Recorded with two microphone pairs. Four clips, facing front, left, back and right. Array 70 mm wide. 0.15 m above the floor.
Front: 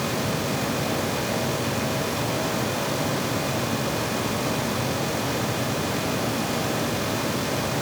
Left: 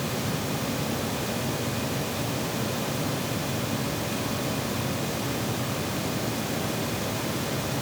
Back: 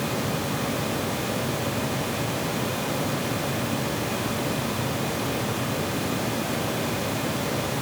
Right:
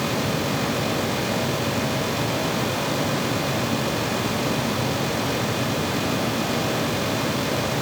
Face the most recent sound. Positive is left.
No sound to turn to.